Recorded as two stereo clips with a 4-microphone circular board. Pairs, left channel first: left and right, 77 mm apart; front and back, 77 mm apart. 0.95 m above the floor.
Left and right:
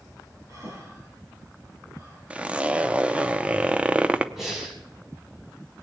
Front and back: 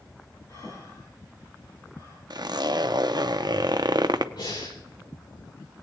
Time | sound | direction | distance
0.5 | breathing | 45° right | 5.5 m
2.3 | a zipper | 165° right | 0.6 m
4.4 | breathing | 5° right | 5.5 m